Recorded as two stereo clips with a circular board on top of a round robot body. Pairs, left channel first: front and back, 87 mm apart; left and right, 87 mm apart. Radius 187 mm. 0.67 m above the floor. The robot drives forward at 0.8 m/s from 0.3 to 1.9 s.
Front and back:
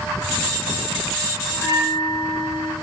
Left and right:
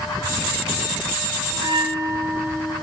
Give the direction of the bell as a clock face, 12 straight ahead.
2 o'clock.